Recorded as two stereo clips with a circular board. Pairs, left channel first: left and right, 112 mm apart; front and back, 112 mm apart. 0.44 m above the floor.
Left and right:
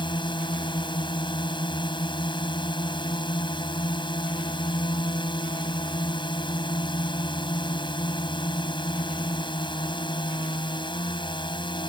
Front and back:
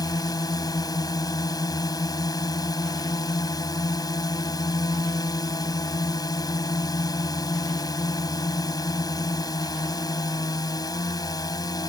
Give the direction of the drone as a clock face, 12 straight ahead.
10 o'clock.